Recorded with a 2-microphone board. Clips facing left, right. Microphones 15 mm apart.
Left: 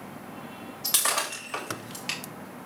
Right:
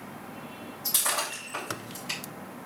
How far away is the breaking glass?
About 3.5 m.